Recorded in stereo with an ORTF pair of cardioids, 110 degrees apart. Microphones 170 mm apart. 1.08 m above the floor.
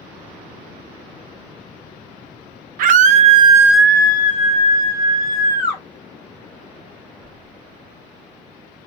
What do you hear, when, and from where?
2.8 s a scream: 60° right, 0.8 m; by 5.8 s 65° left, 1.4 m